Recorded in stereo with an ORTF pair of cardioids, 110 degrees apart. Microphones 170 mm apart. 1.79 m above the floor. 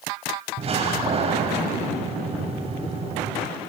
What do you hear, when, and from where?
0.6 s a door slam: 35° right, 8 m